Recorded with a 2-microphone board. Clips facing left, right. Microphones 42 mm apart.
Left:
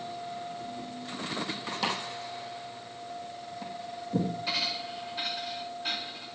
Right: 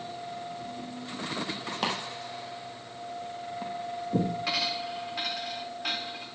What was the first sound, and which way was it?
Chopping, 45° right (ahead or behind).